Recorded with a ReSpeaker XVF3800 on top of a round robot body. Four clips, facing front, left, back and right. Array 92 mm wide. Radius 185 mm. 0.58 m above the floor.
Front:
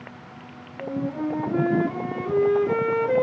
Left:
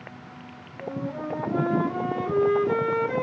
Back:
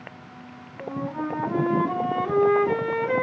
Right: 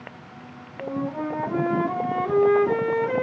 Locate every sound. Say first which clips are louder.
0.8 s a flute: right 4 dB, front 2 dB; 155° right, 0.7 m